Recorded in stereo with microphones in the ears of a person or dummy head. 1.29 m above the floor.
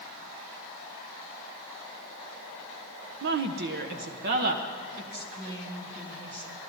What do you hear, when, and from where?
3.2 s a woman speaking: 55° right (ahead or behind), 0.6 m; by 6.5 s 45° right (ahead or behind), 2.5 m